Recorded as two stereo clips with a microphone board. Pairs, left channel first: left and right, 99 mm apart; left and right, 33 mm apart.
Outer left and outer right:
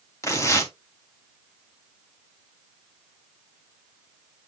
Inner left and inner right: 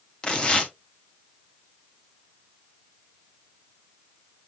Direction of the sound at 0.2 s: 30° left (ahead or behind).